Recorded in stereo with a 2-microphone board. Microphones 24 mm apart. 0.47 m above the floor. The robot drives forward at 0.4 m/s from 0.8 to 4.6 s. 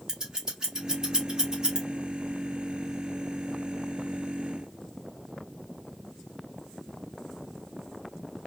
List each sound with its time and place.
0.1 s scissors: 25° right (ahead or behind), 1.4 m